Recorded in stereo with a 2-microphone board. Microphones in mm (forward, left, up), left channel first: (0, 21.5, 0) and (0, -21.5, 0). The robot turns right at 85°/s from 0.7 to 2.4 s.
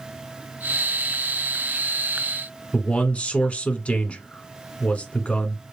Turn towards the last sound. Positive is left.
turn(degrees=30)  # may be behind; listen again after turning